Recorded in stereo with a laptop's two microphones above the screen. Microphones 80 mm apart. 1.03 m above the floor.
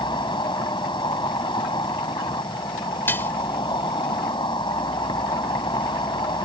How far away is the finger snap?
I don't hear a finger snap.